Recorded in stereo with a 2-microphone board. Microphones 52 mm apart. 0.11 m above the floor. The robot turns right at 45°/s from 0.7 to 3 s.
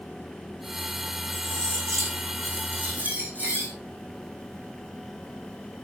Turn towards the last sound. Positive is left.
turn(degrees=-35)